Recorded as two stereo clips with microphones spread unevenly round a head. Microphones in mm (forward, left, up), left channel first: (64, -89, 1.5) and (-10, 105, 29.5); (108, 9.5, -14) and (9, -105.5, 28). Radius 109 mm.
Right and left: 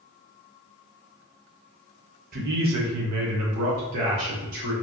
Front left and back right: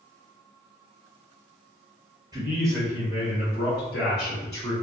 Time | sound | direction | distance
2.3 | a man speaking | 160° left | 0.6 m